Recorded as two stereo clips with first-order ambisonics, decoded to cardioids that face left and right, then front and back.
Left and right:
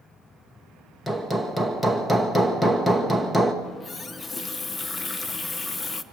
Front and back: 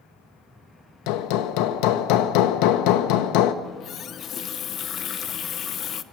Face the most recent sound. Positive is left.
turn(degrees=25)